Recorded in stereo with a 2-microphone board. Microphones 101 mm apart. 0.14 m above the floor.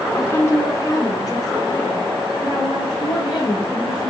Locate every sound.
0.1 s a woman speaking: 25° left (ahead or behind), 1.2 m; by 4.1 s 40° left (ahead or behind), 2.5 m